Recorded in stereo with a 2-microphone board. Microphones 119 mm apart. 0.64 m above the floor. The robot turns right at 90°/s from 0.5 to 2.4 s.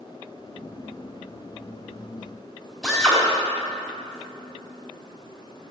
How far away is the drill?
About 4.5 m.